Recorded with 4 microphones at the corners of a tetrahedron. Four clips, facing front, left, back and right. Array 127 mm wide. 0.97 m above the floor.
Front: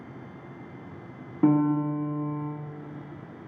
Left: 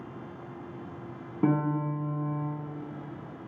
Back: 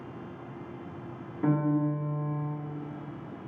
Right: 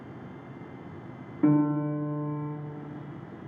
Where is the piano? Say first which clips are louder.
Right 4 dB, front 5 dB; 45° left, 0.9 m.